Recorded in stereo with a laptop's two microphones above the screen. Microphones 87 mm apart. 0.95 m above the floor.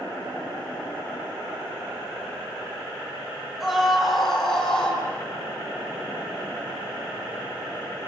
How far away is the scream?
About 6.5 m.